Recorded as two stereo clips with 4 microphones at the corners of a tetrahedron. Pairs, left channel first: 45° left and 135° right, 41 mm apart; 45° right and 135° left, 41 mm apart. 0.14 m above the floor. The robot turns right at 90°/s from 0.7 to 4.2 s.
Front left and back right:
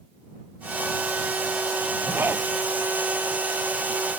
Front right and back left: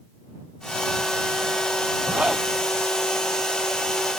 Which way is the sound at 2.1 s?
175° right.